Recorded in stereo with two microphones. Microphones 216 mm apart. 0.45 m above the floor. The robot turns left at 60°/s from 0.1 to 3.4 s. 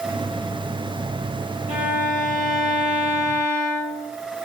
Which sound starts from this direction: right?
A violin, at 1.7 s.